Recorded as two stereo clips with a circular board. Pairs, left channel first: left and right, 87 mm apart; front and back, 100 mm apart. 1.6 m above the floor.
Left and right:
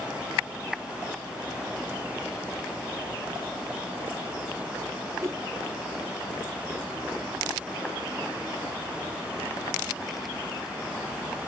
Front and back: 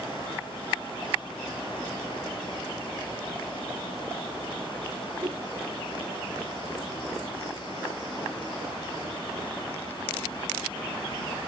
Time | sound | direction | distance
5.2 | a whoosh | 140° right | ?